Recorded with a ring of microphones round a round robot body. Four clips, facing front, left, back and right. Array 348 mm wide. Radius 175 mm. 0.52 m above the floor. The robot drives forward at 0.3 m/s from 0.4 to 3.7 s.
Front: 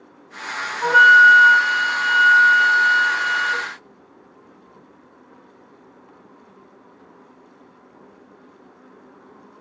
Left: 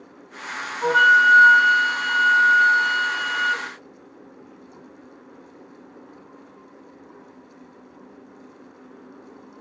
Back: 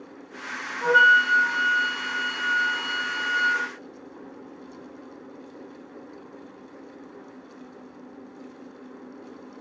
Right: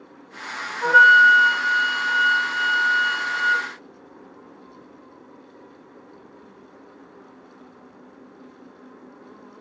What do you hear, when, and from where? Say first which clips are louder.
0.8 s a flute: right 3 dB, front 7 dB; 5° left, 1.8 m; by 3.7 s 10° left, 1.0 m